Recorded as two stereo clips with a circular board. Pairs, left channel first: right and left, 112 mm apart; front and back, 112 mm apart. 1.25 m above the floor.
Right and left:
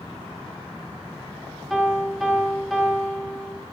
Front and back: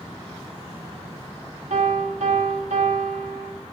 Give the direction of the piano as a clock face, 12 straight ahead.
6 o'clock.